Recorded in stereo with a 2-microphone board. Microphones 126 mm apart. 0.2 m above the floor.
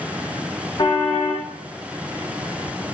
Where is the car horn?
30° left (ahead or behind), 4 m.